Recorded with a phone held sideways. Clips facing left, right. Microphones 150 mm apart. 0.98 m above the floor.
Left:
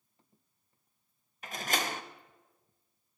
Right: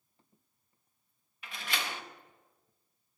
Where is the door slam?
45° left (ahead or behind), 0.6 m.